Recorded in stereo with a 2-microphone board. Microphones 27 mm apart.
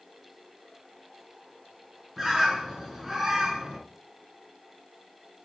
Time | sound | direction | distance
2.2 | a bird | 10° right (ahead or behind) | 2.5 m